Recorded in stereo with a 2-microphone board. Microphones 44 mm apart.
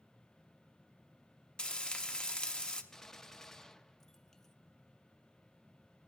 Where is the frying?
20° left (ahead or behind), 0.9 m.